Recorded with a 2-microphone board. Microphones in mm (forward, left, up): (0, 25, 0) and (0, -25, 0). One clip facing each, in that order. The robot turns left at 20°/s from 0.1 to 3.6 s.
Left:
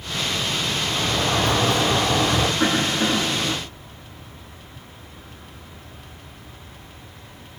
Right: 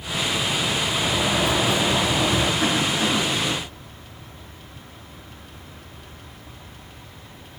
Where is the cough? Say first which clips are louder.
Left 1 dB; 35° left (ahead or behind), 6.5 m; by 3.5 s 15° left (ahead or behind), 6.5 m.